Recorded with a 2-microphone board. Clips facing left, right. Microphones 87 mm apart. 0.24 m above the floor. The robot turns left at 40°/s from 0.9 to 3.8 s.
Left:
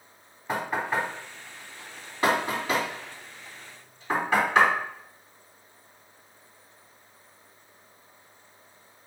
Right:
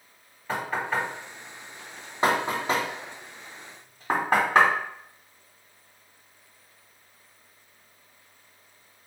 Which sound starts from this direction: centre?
Knocking, at 0.5 s.